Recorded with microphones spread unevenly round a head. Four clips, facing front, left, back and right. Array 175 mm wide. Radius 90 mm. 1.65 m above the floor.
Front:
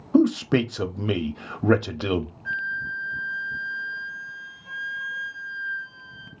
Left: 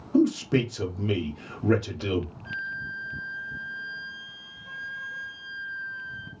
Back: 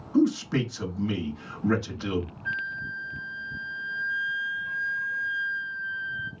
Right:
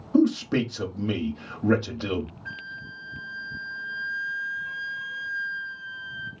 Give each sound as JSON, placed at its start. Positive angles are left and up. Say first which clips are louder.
{"t": 0.1, "sound": "a man speaking", "louder": "right 1 dB, front 4 dB", "azimuth_deg": -5, "distance_m": 0.6}
{"t": 2.5, "sound": "a flute", "louder": "left 4 dB, front 3 dB", "azimuth_deg": -30, "distance_m": 1.2}